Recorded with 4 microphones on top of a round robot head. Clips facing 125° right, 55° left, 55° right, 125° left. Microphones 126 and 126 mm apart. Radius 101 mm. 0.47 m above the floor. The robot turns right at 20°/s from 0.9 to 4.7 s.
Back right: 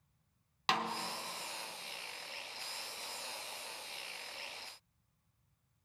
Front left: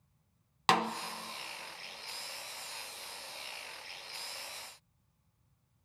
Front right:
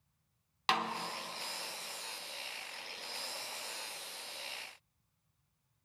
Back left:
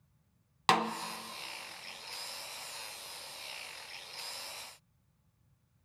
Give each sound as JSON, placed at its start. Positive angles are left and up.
{"t": 0.7, "sound": "a snare drum", "azimuth_deg": 90, "distance_m": 0.6}